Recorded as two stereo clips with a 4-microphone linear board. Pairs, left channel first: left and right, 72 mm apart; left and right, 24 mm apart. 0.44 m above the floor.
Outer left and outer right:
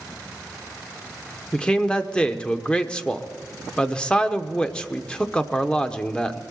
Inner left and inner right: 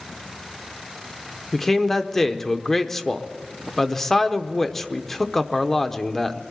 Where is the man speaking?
15° left (ahead or behind), 0.7 m.